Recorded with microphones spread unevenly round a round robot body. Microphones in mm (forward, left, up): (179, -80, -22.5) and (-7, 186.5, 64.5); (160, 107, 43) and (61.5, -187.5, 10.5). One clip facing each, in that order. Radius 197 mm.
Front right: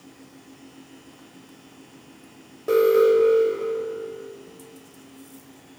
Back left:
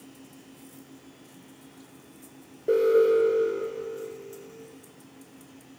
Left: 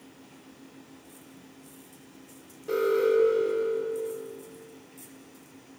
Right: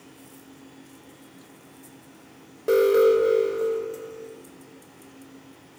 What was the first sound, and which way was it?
An alarm, 125° right.